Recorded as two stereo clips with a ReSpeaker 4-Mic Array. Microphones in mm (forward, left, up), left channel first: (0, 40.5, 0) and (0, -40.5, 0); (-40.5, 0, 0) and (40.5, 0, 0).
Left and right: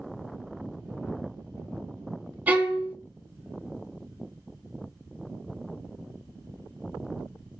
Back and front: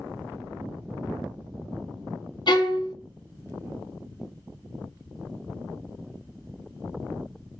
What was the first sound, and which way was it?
A violin, 160° right.